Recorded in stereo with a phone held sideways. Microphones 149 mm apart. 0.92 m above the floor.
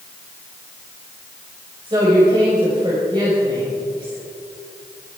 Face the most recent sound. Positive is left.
turn(degrees=-30)  # may be behind; listen again after turning